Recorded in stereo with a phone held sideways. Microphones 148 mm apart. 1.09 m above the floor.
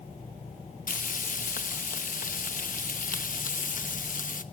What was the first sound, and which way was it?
Frying, 65° left (ahead or behind).